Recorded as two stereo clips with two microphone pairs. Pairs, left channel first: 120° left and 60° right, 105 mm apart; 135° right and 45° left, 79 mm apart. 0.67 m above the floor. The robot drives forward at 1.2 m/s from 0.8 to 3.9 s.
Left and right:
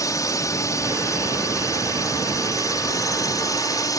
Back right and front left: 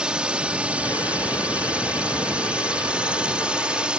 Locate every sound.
0.0 s a drone: 115° left